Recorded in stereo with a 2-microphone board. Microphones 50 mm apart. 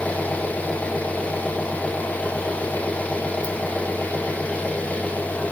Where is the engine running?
30° left (ahead or behind), 2.0 m.